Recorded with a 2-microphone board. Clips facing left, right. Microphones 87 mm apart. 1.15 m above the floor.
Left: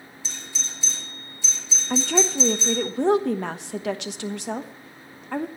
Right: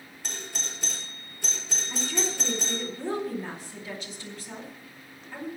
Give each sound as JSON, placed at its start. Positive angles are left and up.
{"t": 0.2, "sound": "a doorbell", "side_deg": -60, "distance_m": 4.5}
{"t": 1.9, "sound": "a woman speaking", "side_deg": 75, "distance_m": 1.0}